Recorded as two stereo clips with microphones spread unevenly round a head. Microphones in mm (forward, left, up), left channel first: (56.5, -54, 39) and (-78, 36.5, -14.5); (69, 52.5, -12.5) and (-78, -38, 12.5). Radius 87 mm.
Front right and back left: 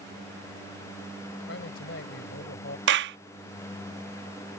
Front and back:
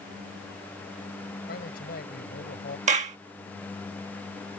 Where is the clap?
165° left.